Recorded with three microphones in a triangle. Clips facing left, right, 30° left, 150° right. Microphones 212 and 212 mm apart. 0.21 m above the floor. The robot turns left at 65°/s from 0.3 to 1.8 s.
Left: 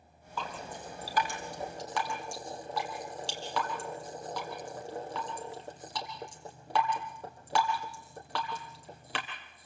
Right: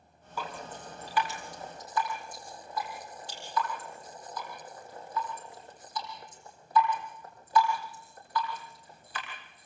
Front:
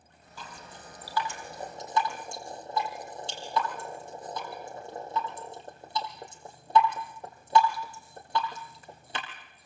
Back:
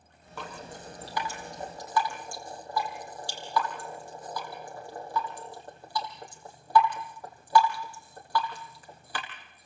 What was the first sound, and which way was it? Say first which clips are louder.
Dripping: even, back 6 dB; 170° right.